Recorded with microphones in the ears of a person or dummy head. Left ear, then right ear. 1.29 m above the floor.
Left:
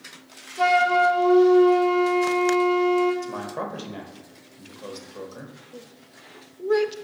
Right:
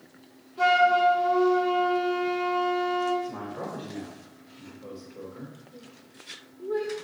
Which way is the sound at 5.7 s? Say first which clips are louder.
Left 4 dB; 65° left (ahead or behind).